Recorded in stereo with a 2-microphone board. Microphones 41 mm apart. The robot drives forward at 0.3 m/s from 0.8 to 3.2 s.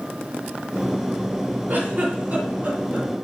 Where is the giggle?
55° right (ahead or behind), 2.0 m; by 3.1 s 45° right (ahead or behind), 2 m.